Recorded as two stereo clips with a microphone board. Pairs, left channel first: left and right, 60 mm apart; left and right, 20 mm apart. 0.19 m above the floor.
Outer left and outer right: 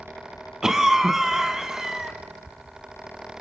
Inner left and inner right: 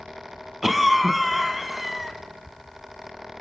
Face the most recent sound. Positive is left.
turn(degrees=-10)  # may be behind; listen again after turning